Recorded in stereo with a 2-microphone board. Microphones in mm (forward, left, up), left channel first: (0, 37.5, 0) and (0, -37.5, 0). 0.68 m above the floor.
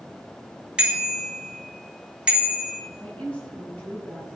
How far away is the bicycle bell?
About 3.5 m.